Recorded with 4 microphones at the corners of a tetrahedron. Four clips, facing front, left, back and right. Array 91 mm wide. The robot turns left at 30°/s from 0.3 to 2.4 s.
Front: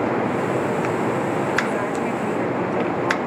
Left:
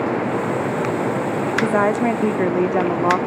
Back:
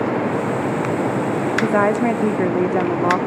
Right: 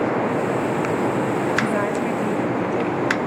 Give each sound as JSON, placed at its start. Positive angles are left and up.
{"t": 1.6, "sound": "a woman speaking", "azimuth_deg": 150, "distance_m": 1.3}